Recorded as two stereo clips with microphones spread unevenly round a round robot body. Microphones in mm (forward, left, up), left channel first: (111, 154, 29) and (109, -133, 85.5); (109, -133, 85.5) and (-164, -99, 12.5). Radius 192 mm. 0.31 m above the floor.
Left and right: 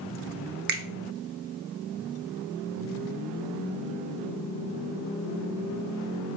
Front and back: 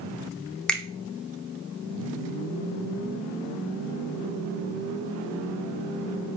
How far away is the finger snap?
About 0.7 m.